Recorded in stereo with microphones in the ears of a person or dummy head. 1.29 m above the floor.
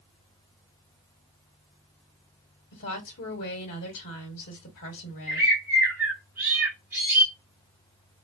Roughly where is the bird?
Centre.